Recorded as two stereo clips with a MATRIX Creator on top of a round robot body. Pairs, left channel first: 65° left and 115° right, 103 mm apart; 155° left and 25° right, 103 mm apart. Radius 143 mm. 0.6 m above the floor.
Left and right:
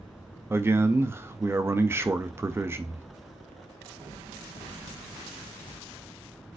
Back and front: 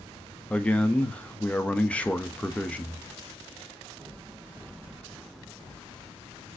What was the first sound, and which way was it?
A man speaking, 140° right.